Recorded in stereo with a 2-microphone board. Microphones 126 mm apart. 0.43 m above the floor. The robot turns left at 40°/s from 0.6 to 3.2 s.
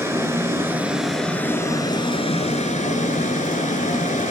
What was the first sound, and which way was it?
Running water, 160° right.